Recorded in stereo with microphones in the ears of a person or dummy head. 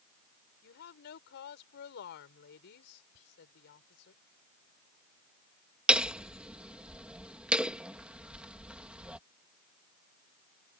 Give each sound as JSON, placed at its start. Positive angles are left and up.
{"t": 0.6, "sound": "a woman speaking", "side_deg": 60}
{"t": 3.1, "sound": "whispering", "side_deg": 85}
{"t": 5.9, "sound": "hammering", "side_deg": -5}